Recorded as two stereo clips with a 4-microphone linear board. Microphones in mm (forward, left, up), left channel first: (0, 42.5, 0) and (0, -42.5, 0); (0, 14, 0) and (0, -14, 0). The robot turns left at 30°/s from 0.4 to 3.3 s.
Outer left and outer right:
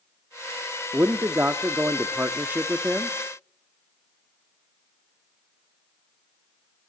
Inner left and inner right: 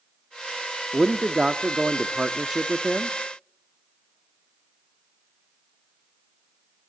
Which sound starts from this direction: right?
A man speaking, at 0.9 s.